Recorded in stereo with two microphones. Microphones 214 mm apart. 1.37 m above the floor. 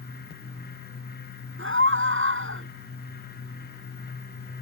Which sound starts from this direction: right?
A scream, at 1.6 s.